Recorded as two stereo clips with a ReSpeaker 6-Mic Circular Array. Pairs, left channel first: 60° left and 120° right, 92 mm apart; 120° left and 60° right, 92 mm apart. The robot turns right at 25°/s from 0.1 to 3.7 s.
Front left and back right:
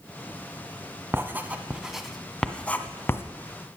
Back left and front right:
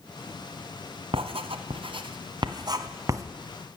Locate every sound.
1.1 s writing: 55° right, 1.1 m; by 3.2 s straight ahead, 1.1 m